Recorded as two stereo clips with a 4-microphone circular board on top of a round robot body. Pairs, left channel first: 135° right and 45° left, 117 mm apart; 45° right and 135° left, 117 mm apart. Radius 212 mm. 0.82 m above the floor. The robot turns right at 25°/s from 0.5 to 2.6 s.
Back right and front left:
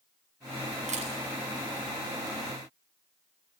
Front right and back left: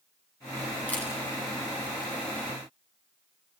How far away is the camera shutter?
About 7.5 m.